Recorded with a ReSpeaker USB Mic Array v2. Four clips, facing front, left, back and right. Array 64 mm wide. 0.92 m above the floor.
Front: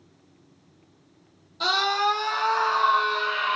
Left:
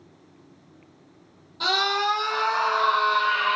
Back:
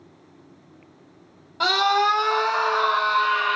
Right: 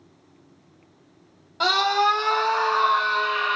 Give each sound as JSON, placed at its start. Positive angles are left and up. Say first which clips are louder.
{"t": 1.6, "sound": "a scream", "louder": "right 4 dB, back 4 dB", "azimuth_deg": -145, "distance_m": 0.9}